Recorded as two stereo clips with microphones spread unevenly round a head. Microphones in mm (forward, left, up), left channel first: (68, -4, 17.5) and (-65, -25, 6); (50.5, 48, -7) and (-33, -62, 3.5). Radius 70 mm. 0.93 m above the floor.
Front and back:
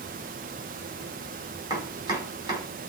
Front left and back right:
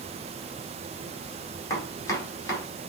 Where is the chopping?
125° left, 2.5 m.